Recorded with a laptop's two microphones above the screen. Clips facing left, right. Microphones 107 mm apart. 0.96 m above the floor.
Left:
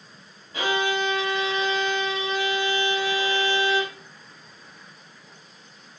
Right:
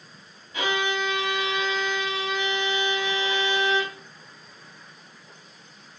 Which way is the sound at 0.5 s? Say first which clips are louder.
Left 2 dB; 30° left (ahead or behind).